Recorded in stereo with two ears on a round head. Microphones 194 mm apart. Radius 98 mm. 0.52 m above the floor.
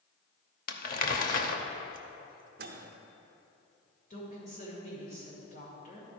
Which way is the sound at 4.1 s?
40° left (ahead or behind).